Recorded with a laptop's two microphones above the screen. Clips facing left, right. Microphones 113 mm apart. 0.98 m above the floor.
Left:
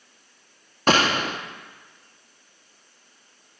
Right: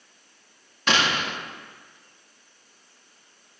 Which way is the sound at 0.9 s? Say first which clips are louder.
Left 4 dB; 40° left (ahead or behind).